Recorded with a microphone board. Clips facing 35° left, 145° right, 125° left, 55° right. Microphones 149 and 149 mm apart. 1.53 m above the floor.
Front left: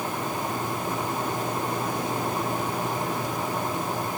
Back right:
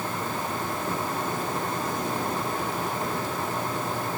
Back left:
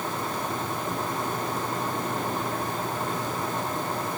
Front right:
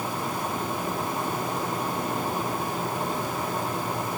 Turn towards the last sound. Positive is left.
No sound to turn to.